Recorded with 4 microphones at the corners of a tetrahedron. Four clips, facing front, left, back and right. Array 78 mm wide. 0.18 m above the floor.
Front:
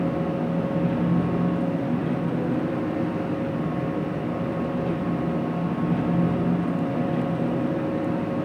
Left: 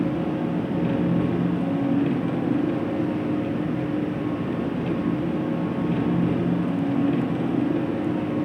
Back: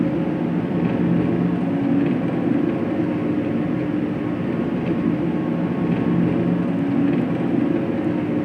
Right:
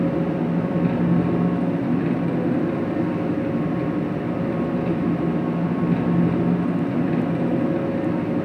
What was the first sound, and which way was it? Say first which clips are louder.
An engine running: right 3 dB, back 4 dB; 165° right.